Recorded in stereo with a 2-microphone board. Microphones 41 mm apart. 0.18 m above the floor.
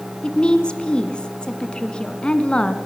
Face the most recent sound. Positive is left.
turn(degrees=25)  # may be behind; listen again after turning